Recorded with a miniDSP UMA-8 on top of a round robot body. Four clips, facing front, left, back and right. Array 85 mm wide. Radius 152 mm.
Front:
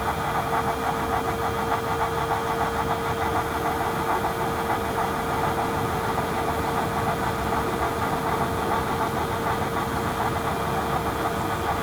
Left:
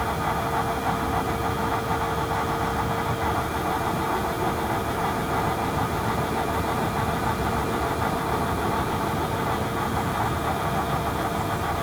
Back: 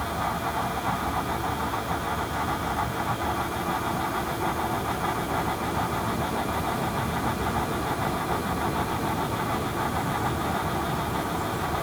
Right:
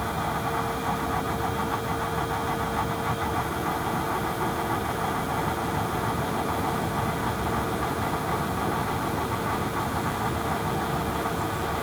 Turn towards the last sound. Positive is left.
No sound to turn to.